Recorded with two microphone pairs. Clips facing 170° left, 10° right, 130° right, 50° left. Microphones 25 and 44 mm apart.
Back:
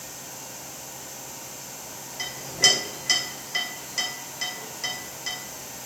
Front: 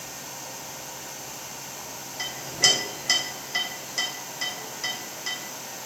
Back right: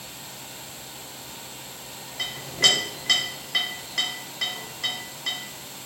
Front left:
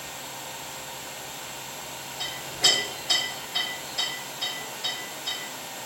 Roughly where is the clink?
Right.